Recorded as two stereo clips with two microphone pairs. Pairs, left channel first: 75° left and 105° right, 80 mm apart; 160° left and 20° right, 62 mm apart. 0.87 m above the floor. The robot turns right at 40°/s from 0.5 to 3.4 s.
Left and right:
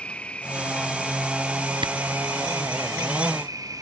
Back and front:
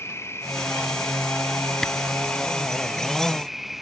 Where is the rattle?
No rattle in this recording.